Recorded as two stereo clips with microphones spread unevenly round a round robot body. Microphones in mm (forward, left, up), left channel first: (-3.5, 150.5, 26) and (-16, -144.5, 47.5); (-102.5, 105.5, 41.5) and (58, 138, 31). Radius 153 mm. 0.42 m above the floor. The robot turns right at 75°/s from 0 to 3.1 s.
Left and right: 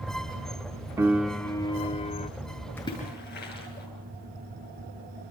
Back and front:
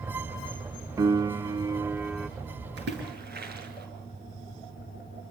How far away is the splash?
About 6.5 m.